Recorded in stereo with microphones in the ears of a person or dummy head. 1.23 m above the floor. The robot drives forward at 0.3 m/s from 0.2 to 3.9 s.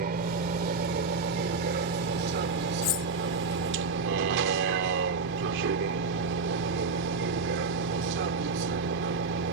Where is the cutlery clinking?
45° left (ahead or behind); by 3.1 s 40° left (ahead or behind).